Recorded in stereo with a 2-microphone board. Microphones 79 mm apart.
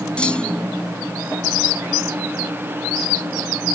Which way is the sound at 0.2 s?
10° left (ahead or behind).